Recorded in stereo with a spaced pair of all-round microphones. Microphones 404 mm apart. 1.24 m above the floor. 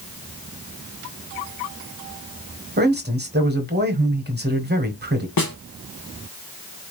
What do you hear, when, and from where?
2.8 s a man speaking: 25° right (ahead or behind), 1.0 m
5.4 s a snare drum: 60° left (ahead or behind), 0.7 m